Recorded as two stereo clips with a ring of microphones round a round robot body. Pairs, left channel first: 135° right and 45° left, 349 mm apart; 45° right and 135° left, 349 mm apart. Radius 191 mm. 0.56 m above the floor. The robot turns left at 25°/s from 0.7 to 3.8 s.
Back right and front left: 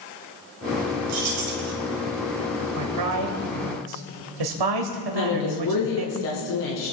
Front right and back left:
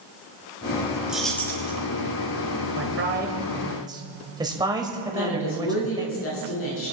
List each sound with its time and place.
1.1 s keys jangling: 50° left, 3 m; by 1.7 s 30° left, 3 m
2.8 s a man speaking: 85° left, 2.5 m; by 6.1 s 55° left, 2.5 m
5.1 s a woman speaking: 100° right, 6 m